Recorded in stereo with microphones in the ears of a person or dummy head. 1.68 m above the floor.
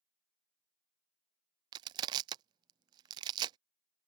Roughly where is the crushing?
Right.